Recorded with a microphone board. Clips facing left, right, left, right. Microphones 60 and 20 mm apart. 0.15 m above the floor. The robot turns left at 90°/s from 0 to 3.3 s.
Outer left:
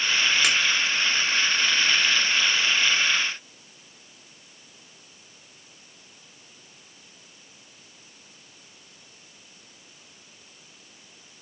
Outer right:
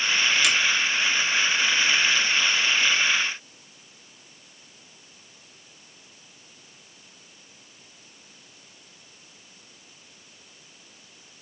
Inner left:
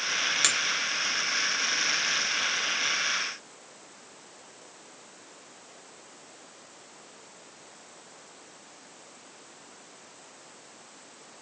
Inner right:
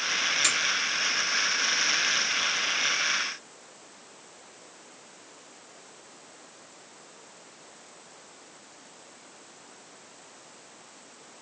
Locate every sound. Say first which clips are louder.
0.4 s a finger snap: even, inner left 1 dB; 45° left (ahead or behind), 1.8 m